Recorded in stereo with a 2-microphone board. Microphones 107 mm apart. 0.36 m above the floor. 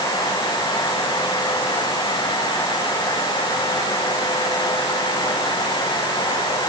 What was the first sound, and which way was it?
Only background noise.